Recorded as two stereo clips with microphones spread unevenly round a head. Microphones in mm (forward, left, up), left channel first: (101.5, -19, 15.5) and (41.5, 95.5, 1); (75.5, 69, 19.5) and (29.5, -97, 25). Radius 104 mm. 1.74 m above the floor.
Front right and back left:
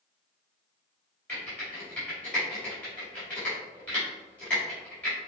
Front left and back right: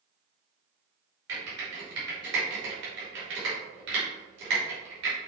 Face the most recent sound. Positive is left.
turn(degrees=-145)